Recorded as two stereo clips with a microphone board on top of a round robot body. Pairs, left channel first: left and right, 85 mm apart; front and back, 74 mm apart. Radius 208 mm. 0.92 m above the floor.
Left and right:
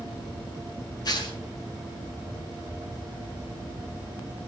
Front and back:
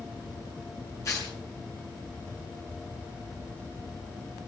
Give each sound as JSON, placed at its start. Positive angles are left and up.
{"t": 1.1, "sound": "tearing paper", "azimuth_deg": 50, "distance_m": 5.0}